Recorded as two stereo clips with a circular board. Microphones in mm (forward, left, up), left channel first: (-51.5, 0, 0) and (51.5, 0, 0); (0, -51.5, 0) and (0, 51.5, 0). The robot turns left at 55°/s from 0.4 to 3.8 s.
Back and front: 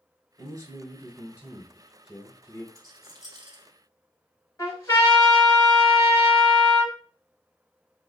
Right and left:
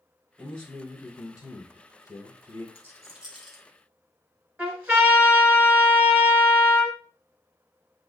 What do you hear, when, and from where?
0.4 s a man speaking: 10° right, 1.3 m; by 2.6 s 135° right, 1.3 m
2.8 s a rattle: 40° left, 1.6 m; by 3.6 s 10° right, 1.6 m
4.6 s a trumpet: 155° left, 1.5 m